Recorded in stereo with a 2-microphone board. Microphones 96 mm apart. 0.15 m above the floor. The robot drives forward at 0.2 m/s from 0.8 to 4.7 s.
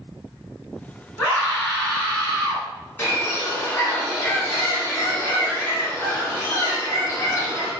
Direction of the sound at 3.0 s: 25° left (ahead or behind).